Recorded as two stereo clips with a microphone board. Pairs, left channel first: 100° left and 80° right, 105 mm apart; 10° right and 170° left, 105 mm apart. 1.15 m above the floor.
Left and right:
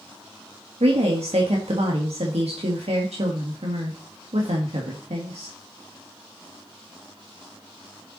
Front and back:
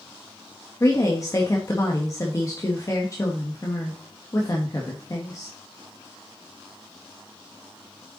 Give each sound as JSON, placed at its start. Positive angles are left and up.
{"t": 0.8, "sound": "a woman speaking", "azimuth_deg": -70, "distance_m": 1.6}